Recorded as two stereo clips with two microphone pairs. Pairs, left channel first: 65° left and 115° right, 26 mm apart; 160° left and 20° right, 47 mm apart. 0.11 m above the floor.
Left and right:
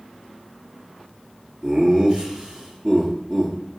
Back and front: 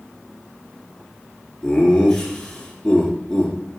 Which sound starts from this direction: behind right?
Laughter, at 1.6 s.